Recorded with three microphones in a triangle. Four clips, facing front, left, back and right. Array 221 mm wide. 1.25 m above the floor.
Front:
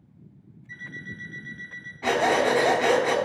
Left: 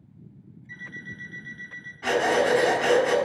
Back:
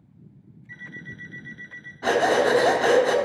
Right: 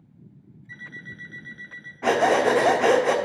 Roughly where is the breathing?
Right.